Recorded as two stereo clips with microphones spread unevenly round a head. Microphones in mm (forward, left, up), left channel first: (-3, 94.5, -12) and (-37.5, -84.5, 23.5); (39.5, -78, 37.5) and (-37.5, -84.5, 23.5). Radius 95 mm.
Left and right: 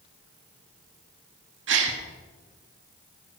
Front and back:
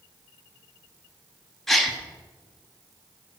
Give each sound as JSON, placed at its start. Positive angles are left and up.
{"t": 1.7, "sound": "a gasp", "azimuth_deg": -80, "distance_m": 1.3}